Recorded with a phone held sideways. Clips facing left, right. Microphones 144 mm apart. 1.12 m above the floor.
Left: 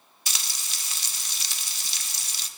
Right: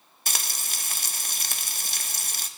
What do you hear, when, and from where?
0.3 s frying: 50° right (ahead or behind), 0.6 m